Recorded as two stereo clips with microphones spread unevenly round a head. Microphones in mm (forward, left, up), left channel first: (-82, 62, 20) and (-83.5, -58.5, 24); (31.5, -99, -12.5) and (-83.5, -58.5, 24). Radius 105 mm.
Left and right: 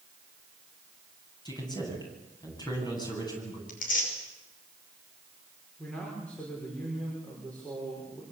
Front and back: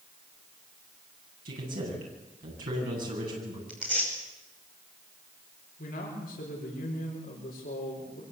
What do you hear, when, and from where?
1.4 s a man speaking: 145° left, 9.5 m
3.7 s tearing paper: 75° left, 6 m
5.8 s a man speaking: 5° left, 5.5 m